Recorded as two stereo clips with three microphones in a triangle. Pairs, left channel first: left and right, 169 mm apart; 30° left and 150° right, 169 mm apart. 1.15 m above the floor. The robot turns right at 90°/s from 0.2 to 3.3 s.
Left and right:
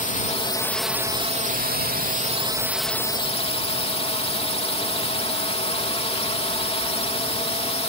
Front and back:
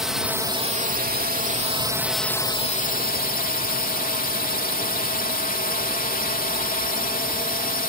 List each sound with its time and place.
0.0 s a drone: 125° left; by 7.9 s 45° left